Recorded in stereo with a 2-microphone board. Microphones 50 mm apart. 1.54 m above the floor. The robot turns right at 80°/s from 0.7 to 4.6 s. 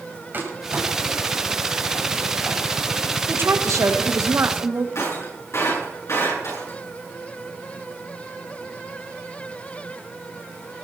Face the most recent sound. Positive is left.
turn(degrees=60)  # may be behind; listen again after turning